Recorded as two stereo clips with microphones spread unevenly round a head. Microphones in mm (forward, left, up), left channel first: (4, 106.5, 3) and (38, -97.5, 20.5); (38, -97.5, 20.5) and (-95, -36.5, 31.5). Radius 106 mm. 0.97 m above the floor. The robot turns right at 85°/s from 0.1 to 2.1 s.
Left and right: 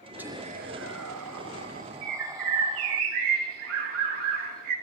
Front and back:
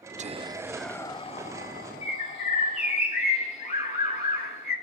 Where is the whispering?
165° right, 0.6 m; by 3.0 s 5° right, 0.6 m.